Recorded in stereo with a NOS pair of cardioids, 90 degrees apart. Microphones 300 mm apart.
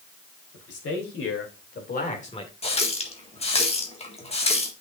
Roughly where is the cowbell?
No cowbell in this recording.